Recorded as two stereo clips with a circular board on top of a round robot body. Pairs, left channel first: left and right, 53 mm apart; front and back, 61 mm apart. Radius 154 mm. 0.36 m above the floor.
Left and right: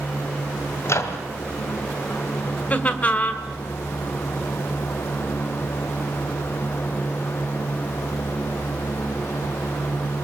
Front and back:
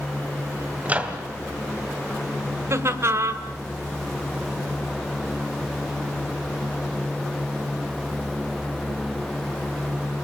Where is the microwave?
115° left, 2 m.